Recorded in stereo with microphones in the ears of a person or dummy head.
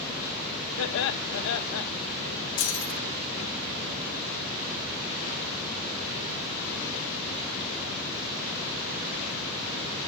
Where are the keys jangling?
45° left (ahead or behind), 3 m.